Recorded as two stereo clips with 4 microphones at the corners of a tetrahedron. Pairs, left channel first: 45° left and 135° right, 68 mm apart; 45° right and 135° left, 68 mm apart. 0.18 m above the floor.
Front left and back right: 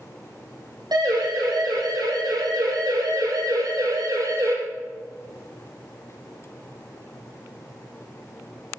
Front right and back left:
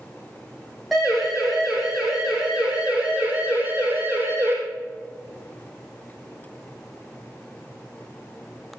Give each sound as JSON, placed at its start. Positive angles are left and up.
{"t": 0.9, "sound": "a siren", "azimuth_deg": -135, "distance_m": 7.5}